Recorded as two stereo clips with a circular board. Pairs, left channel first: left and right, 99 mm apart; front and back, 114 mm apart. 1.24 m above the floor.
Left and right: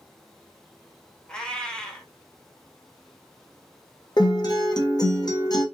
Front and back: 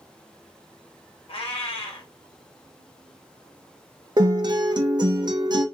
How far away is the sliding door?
No sliding door in this recording.